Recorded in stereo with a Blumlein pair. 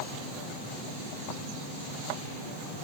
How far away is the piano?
No piano in this recording.